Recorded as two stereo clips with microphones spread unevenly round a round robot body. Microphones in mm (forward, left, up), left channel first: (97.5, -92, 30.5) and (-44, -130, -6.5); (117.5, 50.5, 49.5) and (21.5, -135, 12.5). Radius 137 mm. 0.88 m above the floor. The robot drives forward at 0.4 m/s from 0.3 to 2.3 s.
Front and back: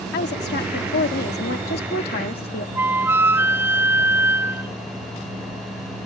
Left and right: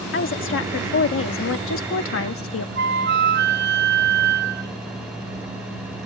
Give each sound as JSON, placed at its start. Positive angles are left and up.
{"t": 0.1, "sound": "a woman speaking", "azimuth_deg": 35}
{"t": 2.8, "sound": "a flute", "azimuth_deg": -80}